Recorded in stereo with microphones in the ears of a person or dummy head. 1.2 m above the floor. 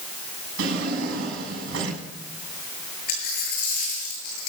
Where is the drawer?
85° right, 7 m.